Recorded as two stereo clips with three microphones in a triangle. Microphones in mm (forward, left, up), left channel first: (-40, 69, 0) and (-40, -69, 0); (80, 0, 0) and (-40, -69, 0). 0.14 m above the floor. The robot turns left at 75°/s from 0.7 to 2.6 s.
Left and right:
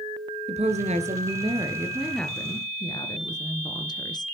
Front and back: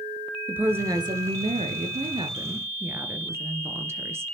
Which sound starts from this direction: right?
A woman speaking, at 0.5 s.